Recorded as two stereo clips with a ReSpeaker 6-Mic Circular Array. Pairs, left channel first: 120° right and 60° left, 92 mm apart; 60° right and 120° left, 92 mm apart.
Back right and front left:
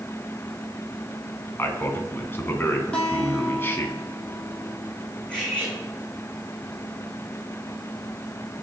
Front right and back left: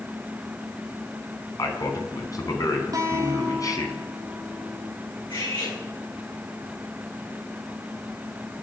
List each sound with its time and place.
1.6 s a man speaking: 70° right, 2 m
2.9 s a guitar: 165° left, 3 m
5.3 s cutlery clinking: 40° right, 7.5 m